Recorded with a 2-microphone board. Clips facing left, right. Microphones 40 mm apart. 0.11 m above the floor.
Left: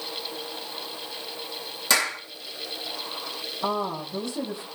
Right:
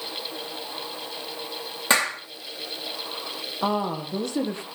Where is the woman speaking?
55° right (ahead or behind), 2.5 m.